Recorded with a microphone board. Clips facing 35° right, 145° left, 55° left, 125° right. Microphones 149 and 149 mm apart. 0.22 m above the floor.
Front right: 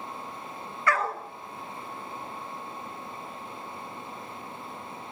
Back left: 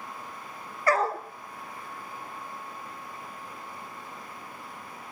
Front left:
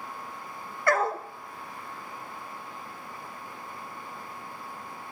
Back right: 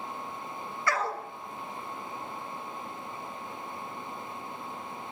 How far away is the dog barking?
About 0.7 m.